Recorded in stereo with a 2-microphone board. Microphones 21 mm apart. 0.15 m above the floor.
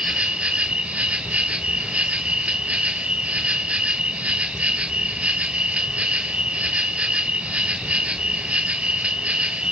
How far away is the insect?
About 1.2 m.